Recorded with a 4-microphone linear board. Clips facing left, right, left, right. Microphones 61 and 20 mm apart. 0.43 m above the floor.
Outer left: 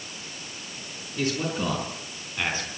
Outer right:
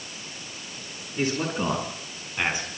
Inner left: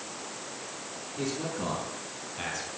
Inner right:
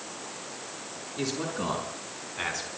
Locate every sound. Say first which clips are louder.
1.2 s a man speaking: outer right 1 dB, inner right 2 dB; 25° right (ahead or behind), 6 m; by 2.7 s 15° right (ahead or behind), 4.5 m